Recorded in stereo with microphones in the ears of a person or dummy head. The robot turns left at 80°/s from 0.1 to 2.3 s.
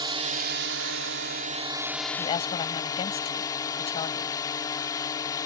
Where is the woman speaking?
25° left (ahead or behind); by 4.3 s 35° left (ahead or behind).